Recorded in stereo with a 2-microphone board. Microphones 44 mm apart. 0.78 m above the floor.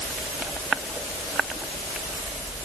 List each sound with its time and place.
Only background noise.